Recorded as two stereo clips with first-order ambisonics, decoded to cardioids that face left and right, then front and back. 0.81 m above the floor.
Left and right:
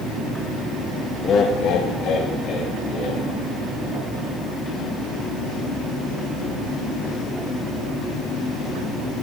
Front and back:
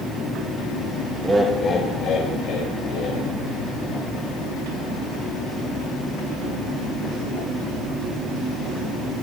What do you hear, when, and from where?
1.2 s laughter: 125° left, 0.6 m; by 3.3 s 35° left, 2 m